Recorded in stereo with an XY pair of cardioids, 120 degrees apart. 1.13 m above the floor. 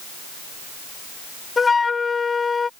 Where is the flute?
25° left.